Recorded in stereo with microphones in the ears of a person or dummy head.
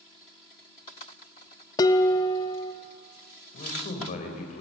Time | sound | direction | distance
1.8 | dishes clattering | 25° left (ahead or behind) | 1.2 m
3.5 | a man speaking | 45° left (ahead or behind) | 4 m